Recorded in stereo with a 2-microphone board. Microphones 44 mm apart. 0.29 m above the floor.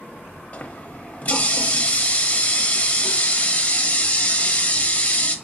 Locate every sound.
0.5 s a running tap: 35° left (ahead or behind), 1.0 m